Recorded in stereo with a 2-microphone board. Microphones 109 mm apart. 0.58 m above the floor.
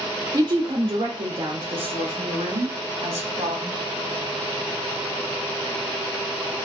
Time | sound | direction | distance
0.3 | a woman speaking | 35° right (ahead or behind) | 0.8 m